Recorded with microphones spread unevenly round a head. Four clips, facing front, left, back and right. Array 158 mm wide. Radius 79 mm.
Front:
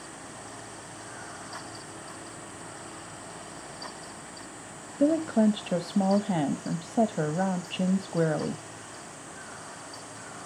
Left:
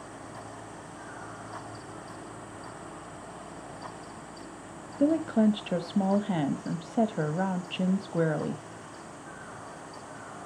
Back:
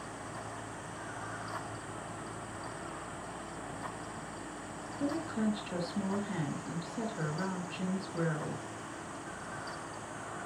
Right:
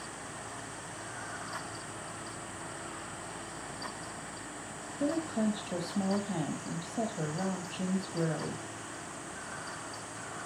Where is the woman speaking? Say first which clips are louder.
Left 7 dB, front 11 dB; 40° left, 1.1 m.